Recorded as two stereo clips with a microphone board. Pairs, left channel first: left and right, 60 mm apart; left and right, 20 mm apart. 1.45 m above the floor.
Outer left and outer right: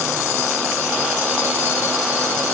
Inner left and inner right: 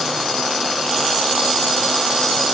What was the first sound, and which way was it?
Only background noise.